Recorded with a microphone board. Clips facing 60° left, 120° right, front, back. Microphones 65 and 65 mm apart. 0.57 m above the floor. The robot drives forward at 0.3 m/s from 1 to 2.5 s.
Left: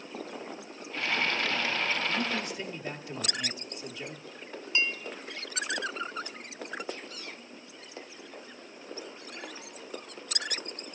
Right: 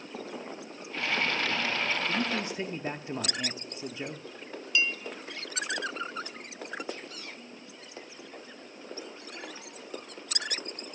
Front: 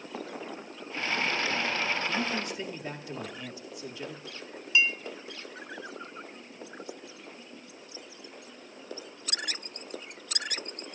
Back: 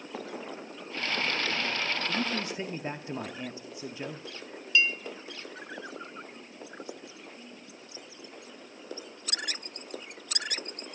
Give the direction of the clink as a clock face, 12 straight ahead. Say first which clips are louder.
Right 1 dB, even; 10 o'clock.